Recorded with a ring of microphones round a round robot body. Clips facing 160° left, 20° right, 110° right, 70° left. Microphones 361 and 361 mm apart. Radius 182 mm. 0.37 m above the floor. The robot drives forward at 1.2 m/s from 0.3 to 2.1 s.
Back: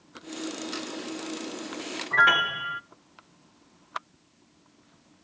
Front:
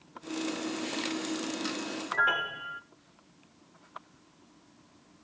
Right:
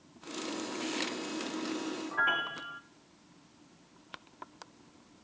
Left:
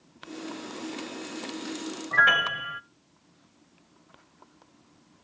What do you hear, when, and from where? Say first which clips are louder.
2.1 s a piano: back 5 dB, left 6 dB; 115° left, 0.7 m